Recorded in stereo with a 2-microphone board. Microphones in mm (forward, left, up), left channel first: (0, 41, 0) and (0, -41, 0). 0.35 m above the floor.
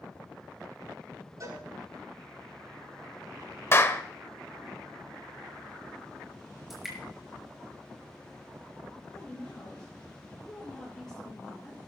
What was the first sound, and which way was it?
A cowbell, 50° right (ahead or behind).